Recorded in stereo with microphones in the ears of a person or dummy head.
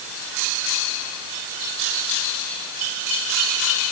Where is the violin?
I don't hear a violin.